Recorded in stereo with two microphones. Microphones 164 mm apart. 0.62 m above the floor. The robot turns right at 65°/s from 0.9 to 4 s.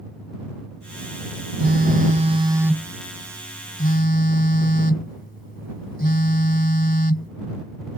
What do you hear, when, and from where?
1.6 s a phone buzzing: 85° right; by 7.3 s 75° left